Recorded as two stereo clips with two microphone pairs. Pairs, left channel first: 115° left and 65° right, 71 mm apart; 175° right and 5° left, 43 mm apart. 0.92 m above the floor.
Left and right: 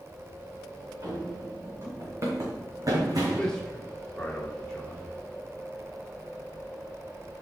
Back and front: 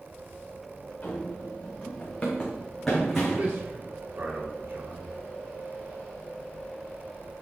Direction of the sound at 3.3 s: 40° left.